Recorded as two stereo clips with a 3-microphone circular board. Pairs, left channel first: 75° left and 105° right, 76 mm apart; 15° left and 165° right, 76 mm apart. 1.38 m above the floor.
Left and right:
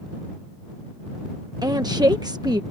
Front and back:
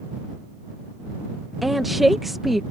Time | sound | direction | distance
1.6 | a woman speaking | 75° right | ?